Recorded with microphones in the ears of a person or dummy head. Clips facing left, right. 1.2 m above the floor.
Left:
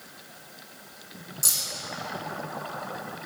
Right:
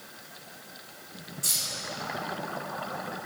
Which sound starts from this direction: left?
Keys jangling, at 1.4 s.